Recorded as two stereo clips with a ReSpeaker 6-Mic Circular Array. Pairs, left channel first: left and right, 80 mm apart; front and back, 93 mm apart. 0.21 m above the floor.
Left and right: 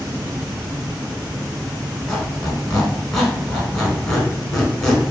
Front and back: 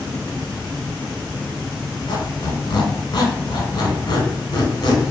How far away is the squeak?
About 0.8 m.